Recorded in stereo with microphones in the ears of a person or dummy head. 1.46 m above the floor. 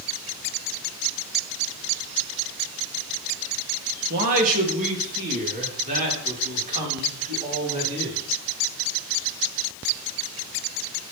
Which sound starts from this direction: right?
A man speaking, at 4.1 s.